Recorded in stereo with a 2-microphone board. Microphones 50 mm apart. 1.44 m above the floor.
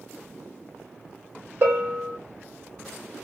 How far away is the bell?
About 1.5 m.